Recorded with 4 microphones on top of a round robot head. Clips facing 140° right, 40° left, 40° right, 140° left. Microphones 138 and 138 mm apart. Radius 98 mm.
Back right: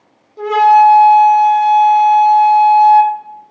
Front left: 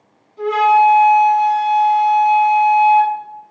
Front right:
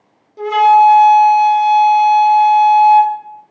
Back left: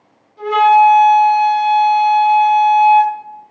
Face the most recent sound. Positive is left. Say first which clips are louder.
# back right 4 dB, front right 1 dB
turn(degrees=-90)